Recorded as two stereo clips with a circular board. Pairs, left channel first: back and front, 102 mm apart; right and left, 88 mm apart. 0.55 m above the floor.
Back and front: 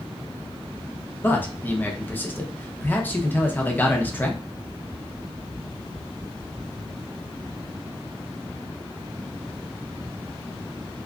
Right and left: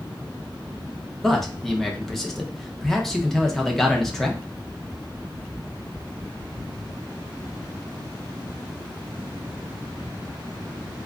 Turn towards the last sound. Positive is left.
turn(degrees=-170)